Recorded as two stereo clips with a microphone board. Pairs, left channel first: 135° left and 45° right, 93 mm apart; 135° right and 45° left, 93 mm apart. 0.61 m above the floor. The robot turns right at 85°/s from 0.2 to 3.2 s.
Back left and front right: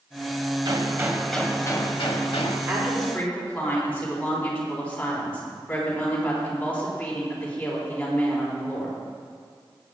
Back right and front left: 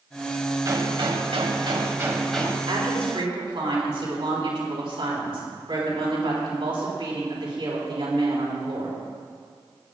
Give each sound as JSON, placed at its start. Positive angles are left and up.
{"t": 0.7, "sound": "a gunshot", "azimuth_deg": -10, "distance_m": 1.6}
{"t": 2.7, "sound": "a woman speaking", "azimuth_deg": 15, "distance_m": 4.0}